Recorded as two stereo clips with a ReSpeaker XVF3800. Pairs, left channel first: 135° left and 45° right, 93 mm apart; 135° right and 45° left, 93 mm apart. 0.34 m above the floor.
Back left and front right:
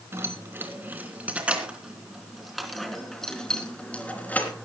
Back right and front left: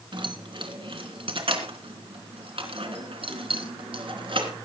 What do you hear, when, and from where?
0.1 s keys jangling: 15° left, 3.5 m; by 4.5 s 65° left, 3.5 m